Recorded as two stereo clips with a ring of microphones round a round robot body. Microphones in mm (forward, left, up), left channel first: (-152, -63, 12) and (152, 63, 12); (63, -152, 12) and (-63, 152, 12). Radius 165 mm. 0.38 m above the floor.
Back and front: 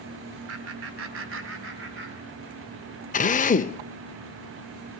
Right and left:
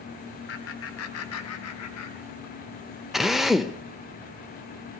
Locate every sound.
0.5 s laughter: 20° right, 2.0 m; by 2.6 s 35° right, 4 m
3.1 s a drill: 160° right, 0.7 m